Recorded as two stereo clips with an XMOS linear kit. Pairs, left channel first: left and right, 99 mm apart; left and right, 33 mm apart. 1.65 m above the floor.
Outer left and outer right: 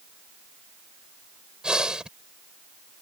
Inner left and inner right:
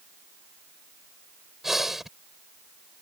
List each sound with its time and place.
1.6 s breathing: 5° right (ahead or behind)